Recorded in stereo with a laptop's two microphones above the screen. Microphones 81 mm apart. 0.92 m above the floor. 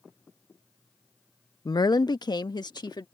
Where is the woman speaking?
50° left (ahead or behind); by 3.0 s 60° left (ahead or behind).